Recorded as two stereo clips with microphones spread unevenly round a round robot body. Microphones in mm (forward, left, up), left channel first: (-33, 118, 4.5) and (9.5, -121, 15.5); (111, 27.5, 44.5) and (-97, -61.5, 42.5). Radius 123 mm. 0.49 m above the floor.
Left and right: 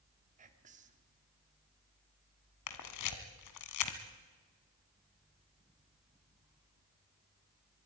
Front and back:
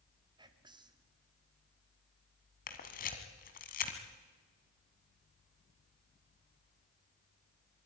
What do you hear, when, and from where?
0.4 s whispering: 105° right, 1.5 m
2.7 s a camera shutter: 80° left, 1.7 m